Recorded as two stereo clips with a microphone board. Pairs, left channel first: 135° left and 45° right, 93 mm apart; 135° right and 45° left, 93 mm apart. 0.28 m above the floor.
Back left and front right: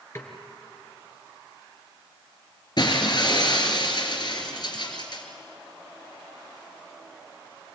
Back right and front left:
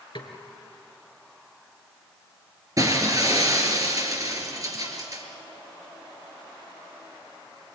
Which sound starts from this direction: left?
Breaking glass, at 2.8 s.